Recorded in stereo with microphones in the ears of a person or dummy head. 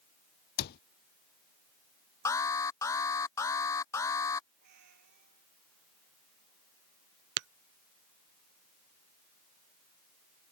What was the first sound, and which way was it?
A cupboard door, 55° left (ahead or behind).